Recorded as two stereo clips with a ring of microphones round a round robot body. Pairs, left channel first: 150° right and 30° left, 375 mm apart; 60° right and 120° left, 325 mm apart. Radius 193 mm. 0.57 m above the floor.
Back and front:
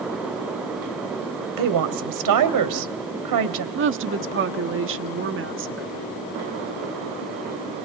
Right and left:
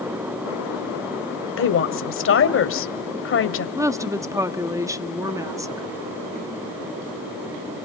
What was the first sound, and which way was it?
A woman speaking, 10° right.